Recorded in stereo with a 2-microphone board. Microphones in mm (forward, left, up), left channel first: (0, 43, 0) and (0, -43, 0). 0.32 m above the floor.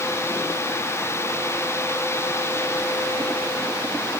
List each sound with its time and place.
Only background noise.